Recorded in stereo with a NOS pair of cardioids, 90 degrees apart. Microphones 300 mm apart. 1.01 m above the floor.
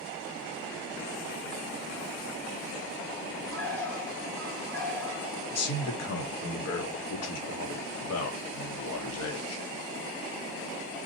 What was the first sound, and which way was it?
A bird, 5° left.